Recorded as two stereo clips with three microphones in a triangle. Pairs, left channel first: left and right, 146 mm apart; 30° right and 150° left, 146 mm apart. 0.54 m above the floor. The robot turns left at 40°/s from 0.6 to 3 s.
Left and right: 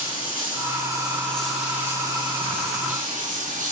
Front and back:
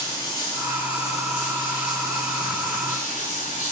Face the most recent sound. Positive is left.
turn(degrees=-60)